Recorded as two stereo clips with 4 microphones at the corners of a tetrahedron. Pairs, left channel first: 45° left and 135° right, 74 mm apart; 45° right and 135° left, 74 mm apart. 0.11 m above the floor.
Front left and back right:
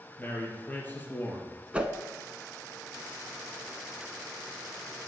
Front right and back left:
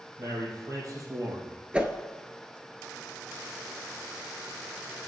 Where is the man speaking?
110° left, 3 m.